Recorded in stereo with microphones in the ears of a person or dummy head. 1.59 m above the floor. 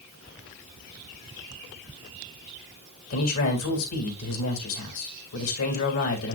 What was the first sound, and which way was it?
A man speaking, 80° left.